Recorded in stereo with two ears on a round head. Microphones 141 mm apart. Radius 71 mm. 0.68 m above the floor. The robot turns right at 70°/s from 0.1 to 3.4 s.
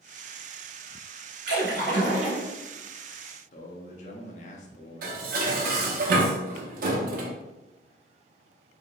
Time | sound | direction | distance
1.5 | a splash | 110° right | 1.5 m
3.5 | a man speaking | 45° left (ahead or behind) | 0.6 m
5.0 | dishes clattering | 60° right (ahead or behind) | 0.6 m